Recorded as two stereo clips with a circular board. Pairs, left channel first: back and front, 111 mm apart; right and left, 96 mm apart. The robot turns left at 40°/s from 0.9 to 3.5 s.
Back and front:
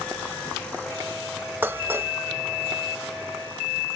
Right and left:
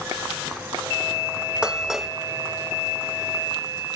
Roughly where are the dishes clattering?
Ahead left.